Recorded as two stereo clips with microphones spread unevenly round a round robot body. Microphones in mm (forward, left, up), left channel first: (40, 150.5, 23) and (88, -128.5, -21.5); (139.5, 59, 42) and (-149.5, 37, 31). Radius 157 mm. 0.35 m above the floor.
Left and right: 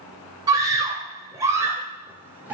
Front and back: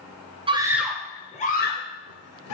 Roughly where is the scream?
Behind right.